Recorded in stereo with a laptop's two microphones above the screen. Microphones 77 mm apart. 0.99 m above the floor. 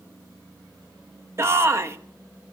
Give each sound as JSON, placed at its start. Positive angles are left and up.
{"t": 1.4, "sound": "a shout", "side_deg": -35, "distance_m": 1.2}